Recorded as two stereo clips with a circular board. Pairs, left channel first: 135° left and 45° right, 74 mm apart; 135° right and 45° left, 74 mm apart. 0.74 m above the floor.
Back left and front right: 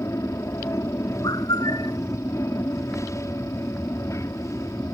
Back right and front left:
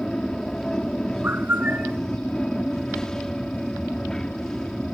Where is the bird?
110° left.